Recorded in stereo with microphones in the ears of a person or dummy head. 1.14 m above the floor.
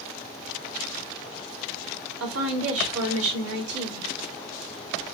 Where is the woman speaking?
75° right (ahead or behind), 1.7 m.